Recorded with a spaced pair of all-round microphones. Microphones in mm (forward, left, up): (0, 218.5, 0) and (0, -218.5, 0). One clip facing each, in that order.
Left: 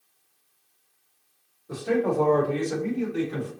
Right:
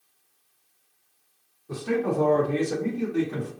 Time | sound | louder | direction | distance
1.7 | a man speaking | left 1 dB | 15° right (ahead or behind) | 1.5 m